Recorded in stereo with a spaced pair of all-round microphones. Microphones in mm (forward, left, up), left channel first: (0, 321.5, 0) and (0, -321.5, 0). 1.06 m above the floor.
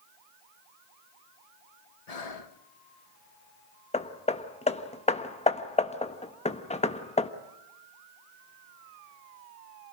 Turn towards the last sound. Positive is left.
turn(degrees=10)  # may be behind; listen again after turning